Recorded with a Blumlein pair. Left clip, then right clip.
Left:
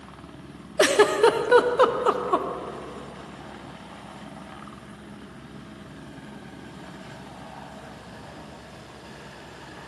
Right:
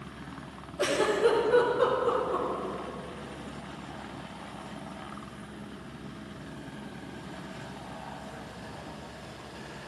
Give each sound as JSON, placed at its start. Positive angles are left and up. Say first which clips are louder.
{"t": 0.8, "sound": "a giggle", "louder": "left 7 dB", "azimuth_deg": 35, "distance_m": 0.6}